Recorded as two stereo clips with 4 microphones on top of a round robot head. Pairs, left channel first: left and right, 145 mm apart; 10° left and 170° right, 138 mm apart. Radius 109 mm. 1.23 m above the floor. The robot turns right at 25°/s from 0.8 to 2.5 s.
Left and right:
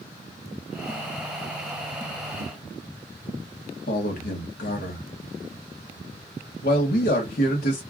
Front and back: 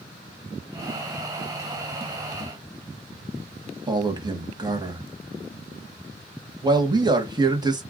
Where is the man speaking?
130° left, 1.1 m.